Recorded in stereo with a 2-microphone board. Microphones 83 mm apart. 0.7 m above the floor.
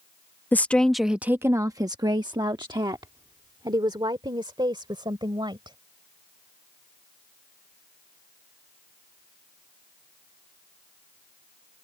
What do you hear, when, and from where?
0.5 s a woman speaking: 25° left (ahead or behind); by 5.8 s 65° right (ahead or behind)